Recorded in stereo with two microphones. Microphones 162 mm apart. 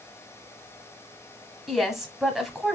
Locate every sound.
1.7 s a woman speaking: centre (ahead or behind), 1.1 m